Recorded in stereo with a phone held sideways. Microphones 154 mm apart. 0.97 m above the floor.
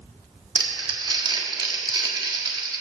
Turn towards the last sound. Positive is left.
turn(degrees=-25)  # may be behind; listen again after turning